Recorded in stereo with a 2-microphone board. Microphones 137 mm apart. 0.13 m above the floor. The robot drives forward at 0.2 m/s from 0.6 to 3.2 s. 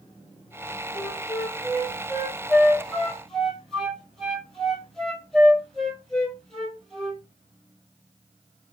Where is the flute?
Centre (ahead or behind), 1.0 m.